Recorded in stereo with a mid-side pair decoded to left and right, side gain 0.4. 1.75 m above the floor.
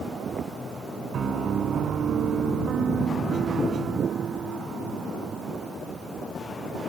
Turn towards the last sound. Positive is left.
turn(degrees=-60)